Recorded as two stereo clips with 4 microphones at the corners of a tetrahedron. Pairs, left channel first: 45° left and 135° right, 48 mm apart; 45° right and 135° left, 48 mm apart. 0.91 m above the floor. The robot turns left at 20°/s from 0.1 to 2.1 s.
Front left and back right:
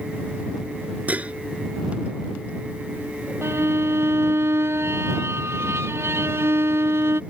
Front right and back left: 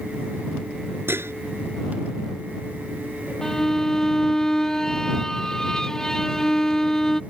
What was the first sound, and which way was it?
Dishes clattering, 170° left.